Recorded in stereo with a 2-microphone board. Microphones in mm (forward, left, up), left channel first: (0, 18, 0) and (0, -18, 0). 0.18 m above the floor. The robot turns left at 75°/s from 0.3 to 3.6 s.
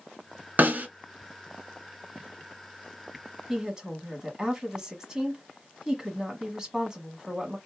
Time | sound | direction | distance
0.6 | a snare drum | 50° right (ahead or behind) | 1.2 m
3.5 | a woman speaking | 15° right (ahead or behind) | 1.2 m